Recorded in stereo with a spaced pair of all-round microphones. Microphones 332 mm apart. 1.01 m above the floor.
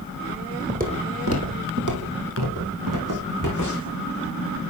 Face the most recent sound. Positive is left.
turn(degrees=-55)  # may be behind; listen again after turning